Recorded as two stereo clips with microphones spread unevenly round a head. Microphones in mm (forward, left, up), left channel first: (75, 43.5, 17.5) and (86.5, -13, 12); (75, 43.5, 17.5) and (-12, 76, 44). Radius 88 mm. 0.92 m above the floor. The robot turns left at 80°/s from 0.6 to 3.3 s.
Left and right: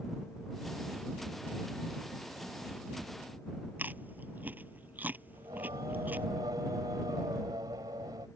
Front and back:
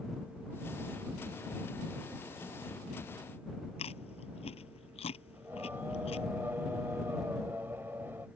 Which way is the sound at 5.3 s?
125° right.